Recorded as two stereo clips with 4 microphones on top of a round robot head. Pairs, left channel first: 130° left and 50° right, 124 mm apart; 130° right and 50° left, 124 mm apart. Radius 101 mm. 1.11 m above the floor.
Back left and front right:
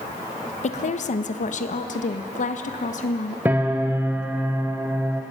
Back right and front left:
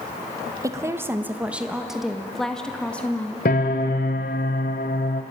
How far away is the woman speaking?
About 1.6 m.